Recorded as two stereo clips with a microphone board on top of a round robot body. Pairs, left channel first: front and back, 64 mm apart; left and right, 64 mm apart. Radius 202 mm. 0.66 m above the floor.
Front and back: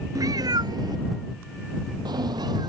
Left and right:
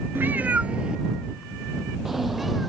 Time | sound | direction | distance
0.1 | a cat meowing | 150° right | ?